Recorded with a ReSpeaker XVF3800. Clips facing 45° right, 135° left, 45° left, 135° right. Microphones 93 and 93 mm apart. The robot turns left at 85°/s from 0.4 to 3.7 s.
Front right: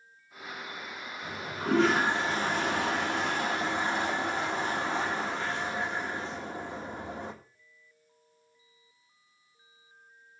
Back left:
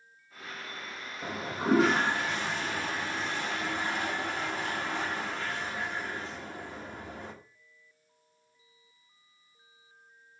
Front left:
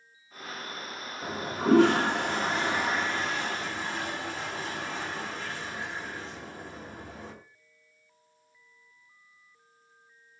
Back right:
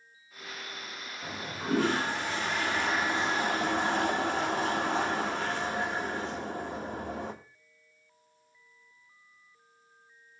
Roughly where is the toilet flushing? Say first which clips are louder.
Back left 3 dB, front left 8 dB; left.